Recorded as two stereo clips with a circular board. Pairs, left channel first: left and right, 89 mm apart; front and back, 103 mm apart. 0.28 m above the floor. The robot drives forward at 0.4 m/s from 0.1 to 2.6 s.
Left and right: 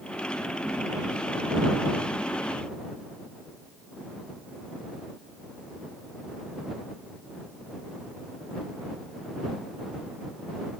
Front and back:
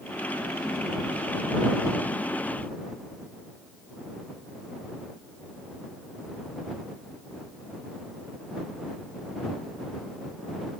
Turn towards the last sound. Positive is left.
No sound to turn to.